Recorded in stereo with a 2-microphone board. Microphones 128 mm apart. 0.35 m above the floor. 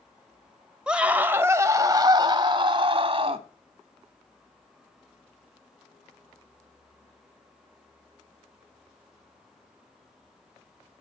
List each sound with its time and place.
0.9 s a scream: 5° right (ahead or behind), 1.2 m; by 3.5 s 45° right (ahead or behind), 2 m